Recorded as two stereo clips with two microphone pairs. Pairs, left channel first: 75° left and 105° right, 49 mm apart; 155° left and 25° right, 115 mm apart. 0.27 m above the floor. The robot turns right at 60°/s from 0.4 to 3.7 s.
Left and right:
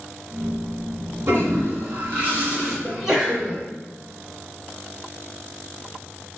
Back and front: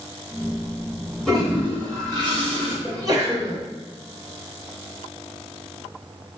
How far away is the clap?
No clap in this recording.